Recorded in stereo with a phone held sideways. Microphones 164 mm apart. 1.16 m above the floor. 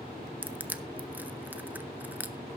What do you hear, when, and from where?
0.4 s crushing: 10° right (ahead or behind), 0.5 m